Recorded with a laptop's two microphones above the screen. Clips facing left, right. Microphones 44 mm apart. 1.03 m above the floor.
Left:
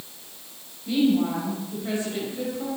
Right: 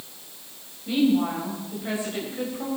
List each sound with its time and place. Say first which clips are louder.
0.9 s a woman speaking: even; 15° right (ahead or behind), 5 m